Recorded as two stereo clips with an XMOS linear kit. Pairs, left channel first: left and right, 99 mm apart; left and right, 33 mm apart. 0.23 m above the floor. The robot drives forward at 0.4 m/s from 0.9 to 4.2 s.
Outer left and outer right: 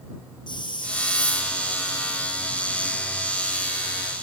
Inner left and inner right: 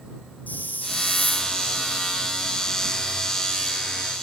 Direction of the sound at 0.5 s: 50° left (ahead or behind).